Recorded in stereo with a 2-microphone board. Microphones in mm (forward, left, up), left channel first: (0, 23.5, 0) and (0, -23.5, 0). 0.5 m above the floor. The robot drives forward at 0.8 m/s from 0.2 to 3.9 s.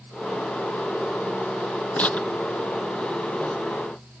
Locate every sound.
2.0 s tearing paper: 35° left (ahead or behind); by 3.5 s 30° left (ahead or behind)